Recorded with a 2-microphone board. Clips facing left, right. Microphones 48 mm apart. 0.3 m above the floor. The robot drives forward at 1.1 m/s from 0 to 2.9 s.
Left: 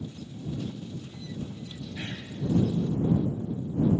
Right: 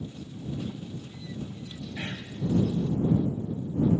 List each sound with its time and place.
2.0 s whispering: 25° right (ahead or behind), 1.6 m; by 2.3 s 30° right (ahead or behind), 1.3 m